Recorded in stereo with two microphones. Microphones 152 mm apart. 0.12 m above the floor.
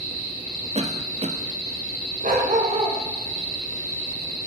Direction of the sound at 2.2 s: 55° right (ahead or behind).